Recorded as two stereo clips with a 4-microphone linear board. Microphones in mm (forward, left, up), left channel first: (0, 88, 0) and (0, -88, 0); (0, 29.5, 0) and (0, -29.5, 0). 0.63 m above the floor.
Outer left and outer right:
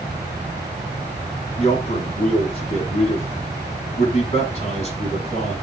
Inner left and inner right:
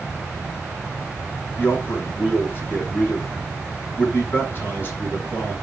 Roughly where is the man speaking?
Left.